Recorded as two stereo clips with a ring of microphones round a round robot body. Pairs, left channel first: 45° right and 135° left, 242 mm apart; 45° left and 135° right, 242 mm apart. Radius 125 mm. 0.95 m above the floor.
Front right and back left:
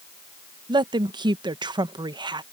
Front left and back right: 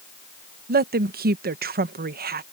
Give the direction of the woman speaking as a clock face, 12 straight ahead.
5 o'clock.